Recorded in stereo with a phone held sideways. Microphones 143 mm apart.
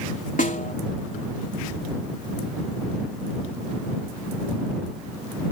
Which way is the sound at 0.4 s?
65° left (ahead or behind).